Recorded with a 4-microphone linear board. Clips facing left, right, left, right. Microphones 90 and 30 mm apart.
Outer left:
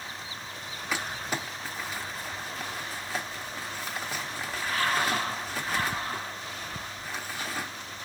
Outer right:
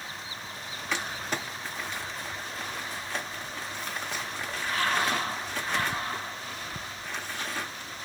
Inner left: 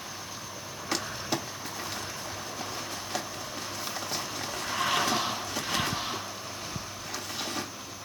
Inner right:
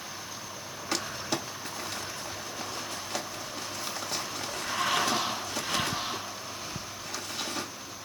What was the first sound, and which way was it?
Crumpling, 5° left (ahead or behind).